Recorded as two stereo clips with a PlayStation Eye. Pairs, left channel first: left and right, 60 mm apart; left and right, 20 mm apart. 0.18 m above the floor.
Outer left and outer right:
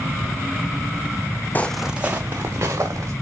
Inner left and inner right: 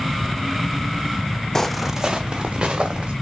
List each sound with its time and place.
1.6 s footsteps: 30° left (ahead or behind), 0.6 m; by 3.1 s 50° right (ahead or behind), 2.5 m